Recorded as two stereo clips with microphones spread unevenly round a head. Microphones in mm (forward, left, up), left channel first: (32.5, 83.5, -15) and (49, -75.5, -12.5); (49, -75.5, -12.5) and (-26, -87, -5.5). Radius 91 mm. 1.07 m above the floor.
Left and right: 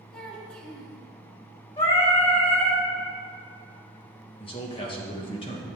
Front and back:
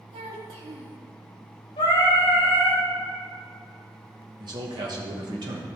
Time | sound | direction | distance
0.1 | a child speaking | straight behind | 1.5 m
1.8 | singing | 50° left | 3.5 m
4.4 | a man speaking | 155° left | 1.2 m